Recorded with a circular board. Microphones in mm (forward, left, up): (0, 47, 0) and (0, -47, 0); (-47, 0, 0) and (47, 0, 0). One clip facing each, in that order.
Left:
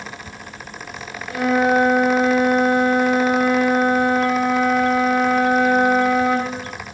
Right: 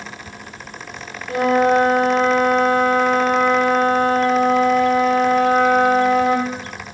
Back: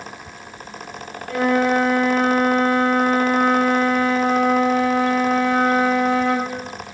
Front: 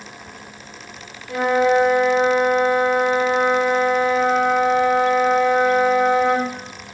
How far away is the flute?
About 5 m.